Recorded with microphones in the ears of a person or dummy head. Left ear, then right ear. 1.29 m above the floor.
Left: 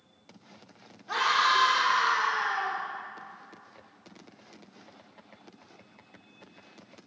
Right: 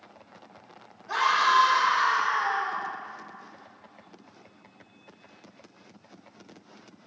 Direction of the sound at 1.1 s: 20° left (ahead or behind).